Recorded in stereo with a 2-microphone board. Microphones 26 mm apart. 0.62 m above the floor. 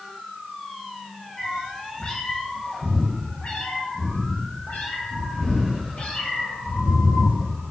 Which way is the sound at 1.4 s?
25° left (ahead or behind).